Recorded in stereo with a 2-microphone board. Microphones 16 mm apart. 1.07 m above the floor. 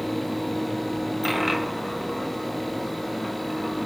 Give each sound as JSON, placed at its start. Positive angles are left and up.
{"t": 1.2, "sound": "a dropped coin", "side_deg": -5, "distance_m": 1.5}